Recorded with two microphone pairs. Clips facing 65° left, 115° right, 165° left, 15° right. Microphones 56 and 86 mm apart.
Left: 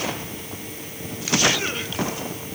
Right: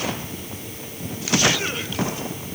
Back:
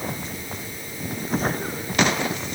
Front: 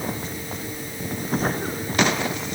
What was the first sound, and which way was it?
Only background noise.